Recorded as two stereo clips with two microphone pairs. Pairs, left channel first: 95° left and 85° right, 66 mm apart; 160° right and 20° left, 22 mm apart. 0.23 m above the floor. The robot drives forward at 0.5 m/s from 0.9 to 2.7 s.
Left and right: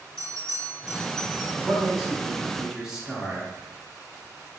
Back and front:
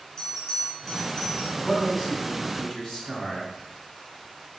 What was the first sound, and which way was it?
A bell, 165° left.